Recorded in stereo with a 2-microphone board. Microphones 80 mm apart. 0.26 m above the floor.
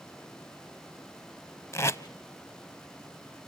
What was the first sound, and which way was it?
Tape being pulled, 35° left (ahead or behind).